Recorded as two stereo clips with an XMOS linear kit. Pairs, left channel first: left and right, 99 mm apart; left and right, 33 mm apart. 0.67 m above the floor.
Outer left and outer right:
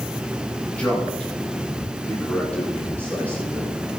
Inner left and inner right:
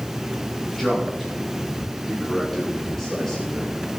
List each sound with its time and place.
0.8 s a man speaking: 15° left (ahead or behind), 9 m